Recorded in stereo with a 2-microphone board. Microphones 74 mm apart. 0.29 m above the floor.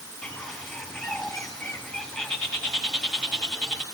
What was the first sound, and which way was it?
A bird, 5° left (ahead or behind).